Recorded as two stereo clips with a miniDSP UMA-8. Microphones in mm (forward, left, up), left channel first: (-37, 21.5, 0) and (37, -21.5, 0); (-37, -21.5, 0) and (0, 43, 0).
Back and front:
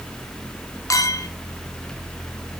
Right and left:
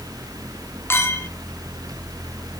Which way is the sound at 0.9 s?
170° right.